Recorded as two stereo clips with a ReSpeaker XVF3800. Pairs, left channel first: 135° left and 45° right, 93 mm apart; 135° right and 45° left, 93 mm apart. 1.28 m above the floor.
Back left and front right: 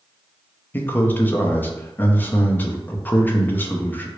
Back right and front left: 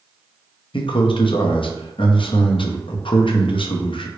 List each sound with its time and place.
0.7 s a man speaking: 155° right, 0.5 m